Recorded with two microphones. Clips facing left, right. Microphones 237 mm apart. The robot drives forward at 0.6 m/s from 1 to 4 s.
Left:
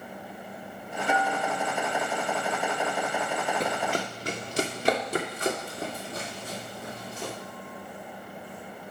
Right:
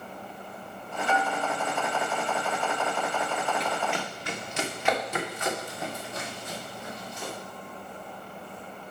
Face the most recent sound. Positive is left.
turn(degrees=35)  # may be behind; listen again after turning